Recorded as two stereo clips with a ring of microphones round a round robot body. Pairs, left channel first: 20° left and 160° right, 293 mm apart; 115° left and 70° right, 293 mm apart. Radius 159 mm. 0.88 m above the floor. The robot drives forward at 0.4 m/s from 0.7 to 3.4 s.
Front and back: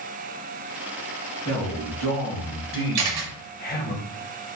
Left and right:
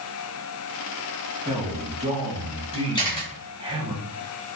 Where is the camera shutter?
175° right, 0.8 m.